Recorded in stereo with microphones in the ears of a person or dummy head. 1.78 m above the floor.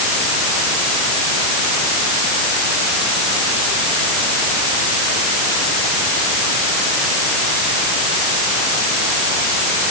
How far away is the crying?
I don't hear crying.